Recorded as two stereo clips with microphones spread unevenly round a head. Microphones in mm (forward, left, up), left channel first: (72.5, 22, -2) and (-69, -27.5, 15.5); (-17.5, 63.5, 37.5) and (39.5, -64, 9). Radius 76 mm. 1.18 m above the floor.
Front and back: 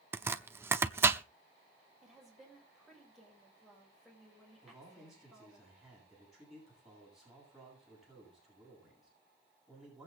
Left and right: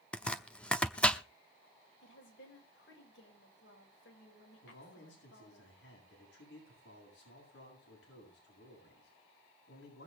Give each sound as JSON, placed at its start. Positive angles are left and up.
{"t": 0.1, "sound": "chopping", "azimuth_deg": 160, "distance_m": 0.7}
{"t": 2.0, "sound": "a woman speaking", "azimuth_deg": 110, "distance_m": 6.5}
{"t": 4.6, "sound": "a man speaking", "azimuth_deg": 110, "distance_m": 9.5}